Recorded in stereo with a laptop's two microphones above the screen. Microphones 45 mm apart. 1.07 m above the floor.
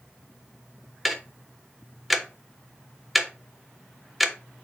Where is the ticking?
Centre (ahead or behind), 1.3 m.